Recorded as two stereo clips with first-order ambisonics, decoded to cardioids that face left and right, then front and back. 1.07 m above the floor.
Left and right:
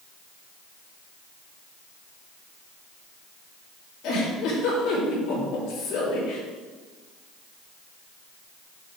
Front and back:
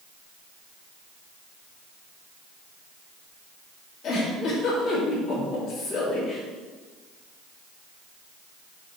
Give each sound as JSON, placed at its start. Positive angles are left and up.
{"t": 4.0, "sound": "a giggle", "azimuth_deg": 55, "distance_m": 2.5}